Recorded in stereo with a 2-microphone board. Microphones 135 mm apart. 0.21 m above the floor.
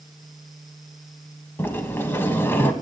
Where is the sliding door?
15° left (ahead or behind), 0.5 m.